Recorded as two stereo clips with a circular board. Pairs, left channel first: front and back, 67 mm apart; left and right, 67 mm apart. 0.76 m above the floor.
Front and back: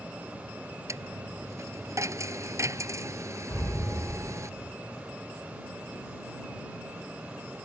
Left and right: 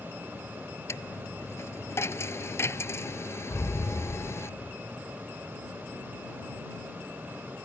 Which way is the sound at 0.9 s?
140° left.